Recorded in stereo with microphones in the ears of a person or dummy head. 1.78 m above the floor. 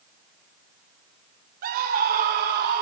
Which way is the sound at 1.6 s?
50° right (ahead or behind).